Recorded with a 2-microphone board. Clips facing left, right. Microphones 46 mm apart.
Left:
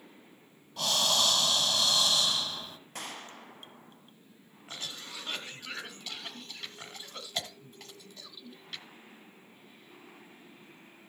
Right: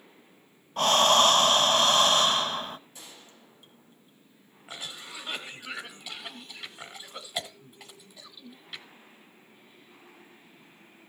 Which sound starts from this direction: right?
Breathing, at 0.8 s.